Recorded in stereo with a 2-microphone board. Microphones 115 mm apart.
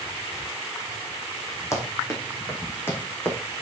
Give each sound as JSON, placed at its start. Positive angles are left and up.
{"t": 1.7, "sound": "running footsteps", "side_deg": 25, "distance_m": 4.0}